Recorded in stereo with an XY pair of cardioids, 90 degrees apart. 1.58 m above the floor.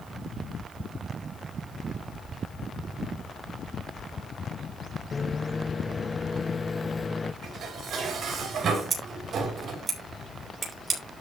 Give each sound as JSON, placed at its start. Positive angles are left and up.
{"t": 5.1, "sound": "a microwave", "azimuth_deg": 30, "distance_m": 0.7}
{"t": 7.4, "sound": "dishes clattering", "azimuth_deg": -65, "distance_m": 5.0}
{"t": 8.9, "sound": "scissors", "azimuth_deg": -45, "distance_m": 5.5}